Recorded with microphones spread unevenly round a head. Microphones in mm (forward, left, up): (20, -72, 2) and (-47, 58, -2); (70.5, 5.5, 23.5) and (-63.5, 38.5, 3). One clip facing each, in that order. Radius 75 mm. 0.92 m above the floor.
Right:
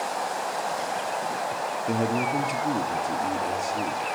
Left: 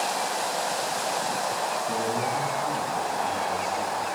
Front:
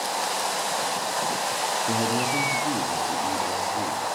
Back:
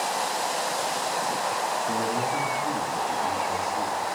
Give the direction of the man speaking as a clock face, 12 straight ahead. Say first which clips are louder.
Right 5 dB, front 1 dB; 2 o'clock.